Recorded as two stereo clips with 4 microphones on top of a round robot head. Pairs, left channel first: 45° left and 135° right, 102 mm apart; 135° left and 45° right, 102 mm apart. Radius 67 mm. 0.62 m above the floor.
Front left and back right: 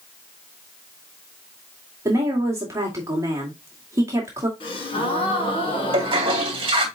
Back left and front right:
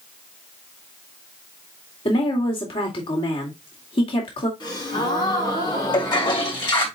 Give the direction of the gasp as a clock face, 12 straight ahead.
9 o'clock.